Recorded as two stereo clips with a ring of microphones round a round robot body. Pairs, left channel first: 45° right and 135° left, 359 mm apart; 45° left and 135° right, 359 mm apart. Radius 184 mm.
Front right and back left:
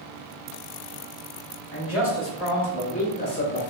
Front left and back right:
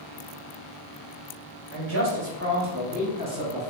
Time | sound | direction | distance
1.7 | a man speaking | 90° right | 1.6 m